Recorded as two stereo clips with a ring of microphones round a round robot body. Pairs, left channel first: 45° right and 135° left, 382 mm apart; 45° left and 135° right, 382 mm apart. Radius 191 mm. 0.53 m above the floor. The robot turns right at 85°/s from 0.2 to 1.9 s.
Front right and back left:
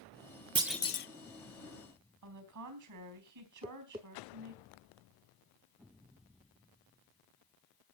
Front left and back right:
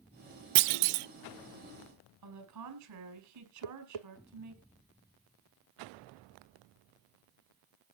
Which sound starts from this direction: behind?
A woman speaking, at 2.2 s.